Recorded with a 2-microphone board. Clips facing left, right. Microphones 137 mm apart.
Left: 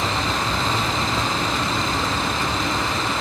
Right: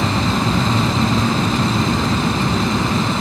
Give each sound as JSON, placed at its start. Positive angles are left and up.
{"t": 0.0, "sound": "an aircraft", "side_deg": -60}